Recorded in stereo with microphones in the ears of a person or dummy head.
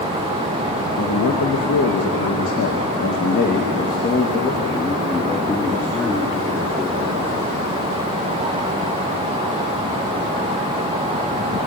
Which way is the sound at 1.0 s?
80° left.